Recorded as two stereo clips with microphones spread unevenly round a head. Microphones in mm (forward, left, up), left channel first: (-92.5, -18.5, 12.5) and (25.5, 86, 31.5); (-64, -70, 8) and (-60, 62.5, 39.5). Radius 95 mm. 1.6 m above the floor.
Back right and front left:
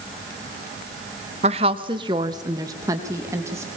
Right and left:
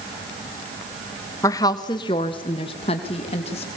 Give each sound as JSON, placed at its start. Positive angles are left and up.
{"t": 1.4, "sound": "a woman speaking", "azimuth_deg": -20, "distance_m": 1.1}